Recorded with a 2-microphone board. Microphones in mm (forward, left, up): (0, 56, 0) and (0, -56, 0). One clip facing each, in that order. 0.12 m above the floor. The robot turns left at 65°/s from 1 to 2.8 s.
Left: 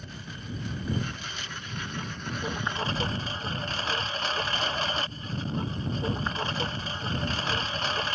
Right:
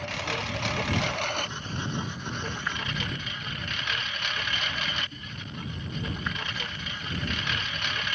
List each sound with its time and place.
0.0 s a lawn mower: 95° right; by 8.2 s 145° left